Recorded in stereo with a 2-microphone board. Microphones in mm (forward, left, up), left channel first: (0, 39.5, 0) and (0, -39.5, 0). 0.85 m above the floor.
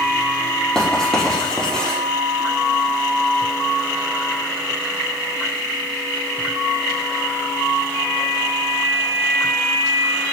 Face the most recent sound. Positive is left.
turn(degrees=10)  # may be behind; listen again after turning